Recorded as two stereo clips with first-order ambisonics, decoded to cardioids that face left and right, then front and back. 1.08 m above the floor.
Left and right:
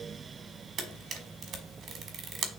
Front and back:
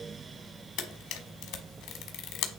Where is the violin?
I don't hear a violin.